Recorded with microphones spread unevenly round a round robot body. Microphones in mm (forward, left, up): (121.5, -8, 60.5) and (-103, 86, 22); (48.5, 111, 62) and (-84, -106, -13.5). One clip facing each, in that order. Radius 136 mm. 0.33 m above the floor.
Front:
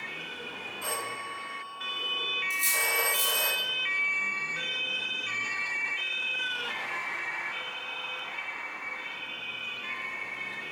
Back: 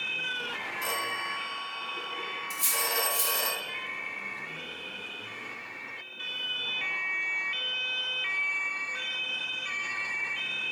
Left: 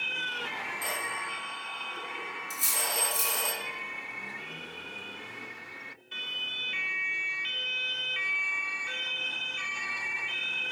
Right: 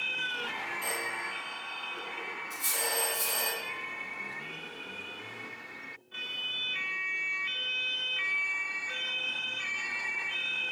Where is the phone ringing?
120° left, 2.5 m.